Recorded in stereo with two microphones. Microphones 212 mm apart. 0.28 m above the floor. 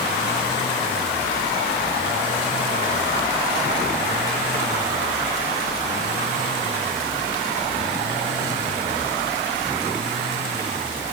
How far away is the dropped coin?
No dropped coin in this recording.